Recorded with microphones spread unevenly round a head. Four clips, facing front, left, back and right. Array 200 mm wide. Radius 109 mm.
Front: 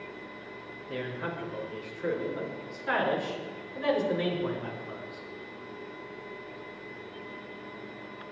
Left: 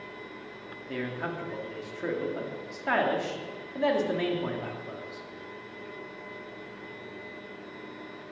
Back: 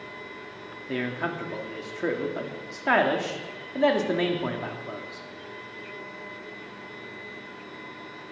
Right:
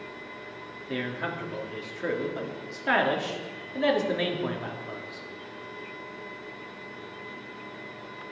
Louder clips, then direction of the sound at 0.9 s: Right 2 dB, back 5 dB; 170° right.